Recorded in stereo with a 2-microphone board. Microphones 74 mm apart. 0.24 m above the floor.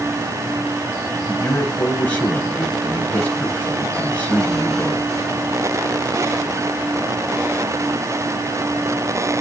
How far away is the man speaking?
About 1.1 m.